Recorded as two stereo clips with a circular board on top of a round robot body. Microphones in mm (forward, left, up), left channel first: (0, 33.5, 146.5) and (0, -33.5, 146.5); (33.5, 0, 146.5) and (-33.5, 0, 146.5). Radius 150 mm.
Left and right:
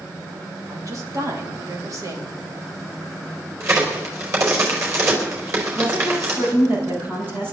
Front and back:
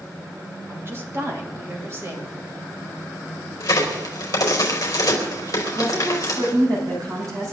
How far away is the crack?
About 4.5 m.